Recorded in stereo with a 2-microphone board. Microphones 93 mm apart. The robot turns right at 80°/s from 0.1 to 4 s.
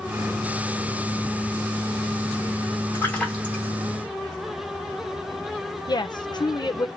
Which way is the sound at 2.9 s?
150° left.